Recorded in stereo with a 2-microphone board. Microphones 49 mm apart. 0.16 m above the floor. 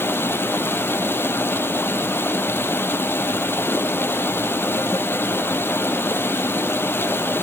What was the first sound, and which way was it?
Running water, 50° left (ahead or behind).